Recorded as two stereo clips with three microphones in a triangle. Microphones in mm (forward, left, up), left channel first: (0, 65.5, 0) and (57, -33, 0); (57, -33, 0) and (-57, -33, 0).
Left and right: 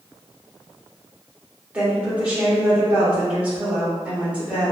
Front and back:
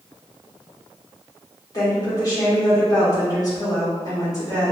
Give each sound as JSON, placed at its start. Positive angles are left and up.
{"t": 1.7, "sound": "a woman speaking", "azimuth_deg": 10, "distance_m": 1.4}